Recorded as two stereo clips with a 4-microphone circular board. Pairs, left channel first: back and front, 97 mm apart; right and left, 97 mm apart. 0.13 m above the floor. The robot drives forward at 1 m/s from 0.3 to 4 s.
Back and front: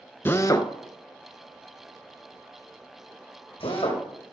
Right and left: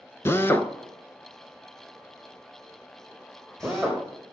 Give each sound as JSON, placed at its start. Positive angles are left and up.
{"t": 0.2, "sound": "a drill", "azimuth_deg": -135, "distance_m": 0.7}